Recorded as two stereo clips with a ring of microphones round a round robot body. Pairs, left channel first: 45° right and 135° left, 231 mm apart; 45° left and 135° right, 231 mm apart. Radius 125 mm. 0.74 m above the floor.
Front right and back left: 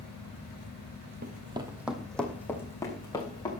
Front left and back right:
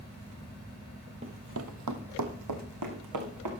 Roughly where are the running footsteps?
Behind.